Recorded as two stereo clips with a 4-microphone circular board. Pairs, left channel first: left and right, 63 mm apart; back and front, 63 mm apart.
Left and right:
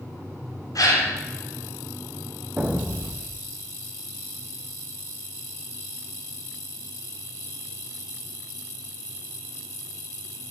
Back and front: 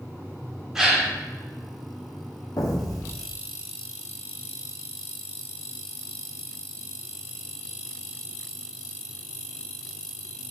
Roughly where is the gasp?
Left.